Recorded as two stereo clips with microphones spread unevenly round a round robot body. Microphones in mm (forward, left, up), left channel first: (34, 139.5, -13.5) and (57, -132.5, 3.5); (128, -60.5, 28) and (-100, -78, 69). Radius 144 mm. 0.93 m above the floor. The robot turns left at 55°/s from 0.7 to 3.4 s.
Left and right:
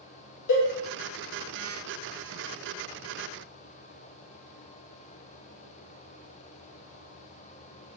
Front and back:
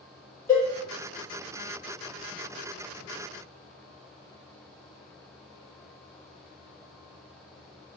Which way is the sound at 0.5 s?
85° left.